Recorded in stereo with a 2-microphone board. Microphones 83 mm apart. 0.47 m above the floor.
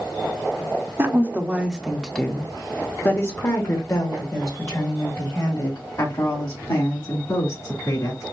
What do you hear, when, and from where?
1.0 s a woman speaking: 30° right (ahead or behind), 0.9 m; by 8.2 s 50° left (ahead or behind), 3.5 m